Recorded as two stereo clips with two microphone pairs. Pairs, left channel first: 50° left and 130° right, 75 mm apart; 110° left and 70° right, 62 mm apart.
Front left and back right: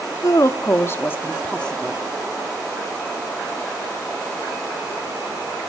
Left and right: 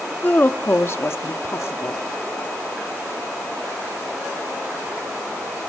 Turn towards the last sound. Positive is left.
turn(degrees=135)